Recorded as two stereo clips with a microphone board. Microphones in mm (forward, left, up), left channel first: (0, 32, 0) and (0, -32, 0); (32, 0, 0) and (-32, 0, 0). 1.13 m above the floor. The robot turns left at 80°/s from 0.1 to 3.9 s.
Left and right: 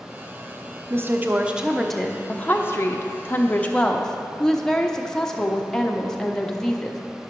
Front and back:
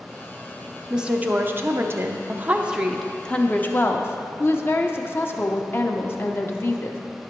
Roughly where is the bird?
No bird in this recording.